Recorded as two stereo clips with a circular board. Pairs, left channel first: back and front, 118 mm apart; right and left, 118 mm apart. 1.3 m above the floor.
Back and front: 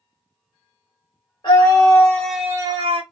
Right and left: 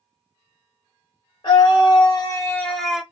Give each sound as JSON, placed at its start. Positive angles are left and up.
{"t": 1.4, "sound": "a scream", "azimuth_deg": -135, "distance_m": 1.2}